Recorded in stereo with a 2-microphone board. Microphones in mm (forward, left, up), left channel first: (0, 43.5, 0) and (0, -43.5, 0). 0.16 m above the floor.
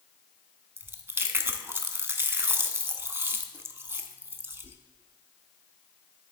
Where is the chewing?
25° right (ahead or behind), 0.6 m.